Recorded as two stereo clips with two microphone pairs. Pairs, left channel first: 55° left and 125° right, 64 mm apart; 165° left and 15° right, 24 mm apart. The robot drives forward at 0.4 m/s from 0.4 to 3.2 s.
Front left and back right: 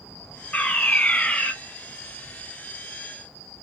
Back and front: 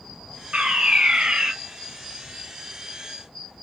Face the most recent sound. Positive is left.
turn(degrees=-20)